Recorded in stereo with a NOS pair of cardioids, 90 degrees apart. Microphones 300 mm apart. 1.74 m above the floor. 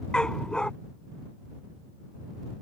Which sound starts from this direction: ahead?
A dog barking, at 0.1 s.